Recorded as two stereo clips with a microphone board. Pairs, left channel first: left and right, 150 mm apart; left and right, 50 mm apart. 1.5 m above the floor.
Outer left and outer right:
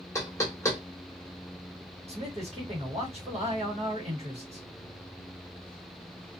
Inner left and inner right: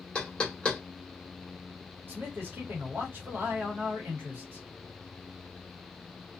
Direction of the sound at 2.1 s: 45° right (ahead or behind).